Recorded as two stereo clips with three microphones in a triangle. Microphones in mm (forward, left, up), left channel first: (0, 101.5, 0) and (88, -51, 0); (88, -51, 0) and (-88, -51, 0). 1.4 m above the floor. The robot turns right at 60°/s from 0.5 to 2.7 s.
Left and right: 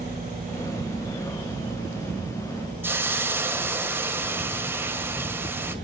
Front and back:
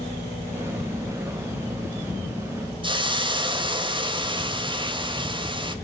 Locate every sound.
2.8 s a hiss: 130° right, 1.5 m